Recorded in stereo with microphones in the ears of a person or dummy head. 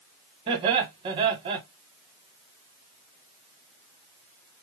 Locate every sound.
0.5 s laughter: 35° right (ahead or behind), 0.9 m